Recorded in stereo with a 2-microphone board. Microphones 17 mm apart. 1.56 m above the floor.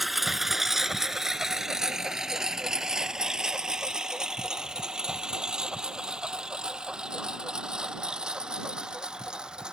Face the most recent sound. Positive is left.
turn(degrees=-55)  # may be behind; listen again after turning